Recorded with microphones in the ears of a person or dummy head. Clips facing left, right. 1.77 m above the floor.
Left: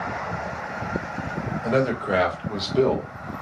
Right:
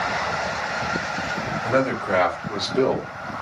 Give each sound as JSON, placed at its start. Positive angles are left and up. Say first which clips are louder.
{"t": 1.6, "sound": "a man speaking", "louder": "even", "side_deg": 15, "distance_m": 1.5}